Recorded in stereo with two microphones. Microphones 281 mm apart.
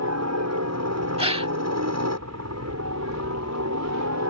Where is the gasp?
20° right (ahead or behind).